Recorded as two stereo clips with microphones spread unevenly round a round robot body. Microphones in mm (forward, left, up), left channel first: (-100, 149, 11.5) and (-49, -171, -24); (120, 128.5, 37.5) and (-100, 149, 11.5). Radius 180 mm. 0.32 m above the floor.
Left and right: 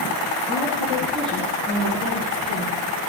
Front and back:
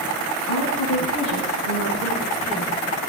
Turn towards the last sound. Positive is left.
turn(degrees=20)